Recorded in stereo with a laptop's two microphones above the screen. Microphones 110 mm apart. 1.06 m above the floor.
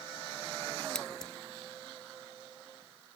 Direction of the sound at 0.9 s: 5° left (ahead or behind).